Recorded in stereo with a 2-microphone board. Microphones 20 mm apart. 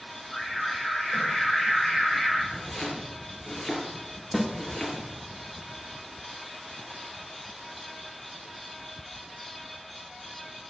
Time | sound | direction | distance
0.3 | an alarm | 20° left (ahead or behind) | 6.5 m
2.5 | chopping | 20° left (ahead or behind) | 4.5 m
4.3 | a snare drum | 5° left (ahead or behind) | 1.8 m